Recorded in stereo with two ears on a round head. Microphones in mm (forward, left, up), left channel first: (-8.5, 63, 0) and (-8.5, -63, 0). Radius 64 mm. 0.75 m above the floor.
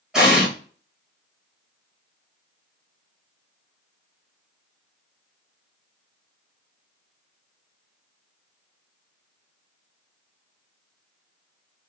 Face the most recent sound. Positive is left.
turn(degrees=-5)  # may be behind; listen again after turning